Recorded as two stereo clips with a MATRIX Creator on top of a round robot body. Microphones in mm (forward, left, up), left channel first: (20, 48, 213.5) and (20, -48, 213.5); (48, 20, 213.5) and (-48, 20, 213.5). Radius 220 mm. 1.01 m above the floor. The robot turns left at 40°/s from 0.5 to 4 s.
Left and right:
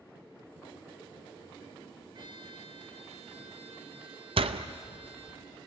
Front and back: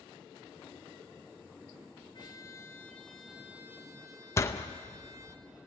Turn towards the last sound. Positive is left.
turn(degrees=-60)